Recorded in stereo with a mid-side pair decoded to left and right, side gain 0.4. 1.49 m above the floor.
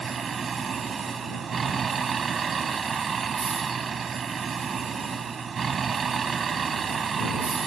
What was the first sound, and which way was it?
A vehicle, 50° right.